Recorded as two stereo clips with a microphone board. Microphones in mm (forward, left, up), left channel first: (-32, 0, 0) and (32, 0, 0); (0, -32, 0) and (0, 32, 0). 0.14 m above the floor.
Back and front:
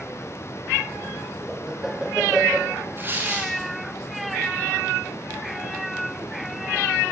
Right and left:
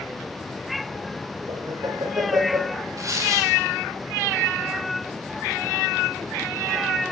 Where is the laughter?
80° left, 5 m.